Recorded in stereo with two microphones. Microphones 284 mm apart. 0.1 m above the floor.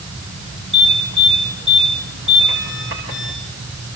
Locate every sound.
0.7 s an alarm: 45° right (ahead or behind), 8.5 m